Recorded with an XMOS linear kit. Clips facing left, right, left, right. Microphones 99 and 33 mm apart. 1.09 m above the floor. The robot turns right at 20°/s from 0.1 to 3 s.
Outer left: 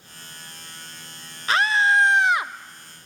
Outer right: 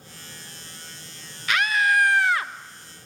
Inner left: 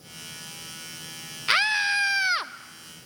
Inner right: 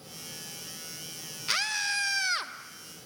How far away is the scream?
About 1.1 m.